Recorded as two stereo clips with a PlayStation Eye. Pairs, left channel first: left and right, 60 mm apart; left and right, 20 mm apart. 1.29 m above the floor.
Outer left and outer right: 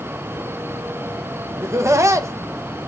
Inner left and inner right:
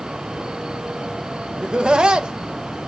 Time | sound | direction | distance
1.6 | laughter | 50° right (ahead or behind) | 1.4 m